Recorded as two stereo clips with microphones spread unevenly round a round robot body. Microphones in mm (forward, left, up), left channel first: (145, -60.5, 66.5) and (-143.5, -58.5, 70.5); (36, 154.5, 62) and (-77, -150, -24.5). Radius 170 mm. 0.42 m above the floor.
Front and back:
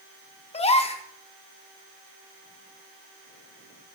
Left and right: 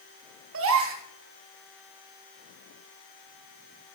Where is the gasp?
70° right, 0.7 m.